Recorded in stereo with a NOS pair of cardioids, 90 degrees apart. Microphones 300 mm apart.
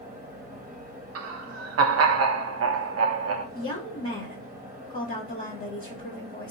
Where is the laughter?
55° right, 0.8 m.